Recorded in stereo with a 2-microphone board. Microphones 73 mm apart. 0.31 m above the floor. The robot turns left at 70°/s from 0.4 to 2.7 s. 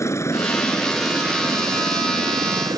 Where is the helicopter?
40° left; by 2.8 s 120° right.